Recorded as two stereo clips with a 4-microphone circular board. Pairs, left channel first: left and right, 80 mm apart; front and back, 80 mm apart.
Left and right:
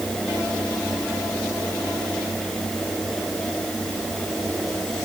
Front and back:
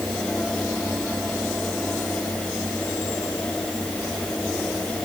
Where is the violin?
I don't hear a violin.